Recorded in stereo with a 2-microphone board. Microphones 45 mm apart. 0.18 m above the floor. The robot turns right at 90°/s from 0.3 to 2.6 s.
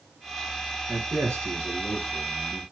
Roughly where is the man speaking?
Behind right.